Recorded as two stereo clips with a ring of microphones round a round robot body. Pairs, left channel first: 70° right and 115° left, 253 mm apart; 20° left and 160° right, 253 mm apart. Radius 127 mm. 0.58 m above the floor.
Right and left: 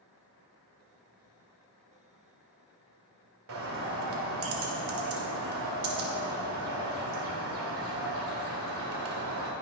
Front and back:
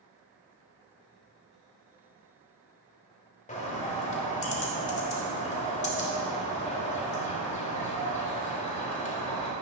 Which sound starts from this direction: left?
A bird, at 3.5 s.